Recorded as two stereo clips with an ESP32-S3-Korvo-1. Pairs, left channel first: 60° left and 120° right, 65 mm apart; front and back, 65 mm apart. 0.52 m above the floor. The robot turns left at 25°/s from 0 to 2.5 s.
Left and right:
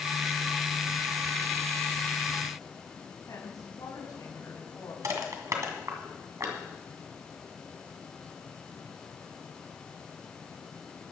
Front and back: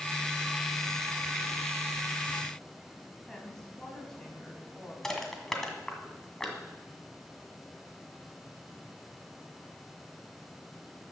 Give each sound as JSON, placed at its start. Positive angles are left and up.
{"t": 3.3, "sound": "a woman speaking", "azimuth_deg": 80, "distance_m": 4.0}
{"t": 5.0, "sound": "crushing", "azimuth_deg": -85, "distance_m": 1.9}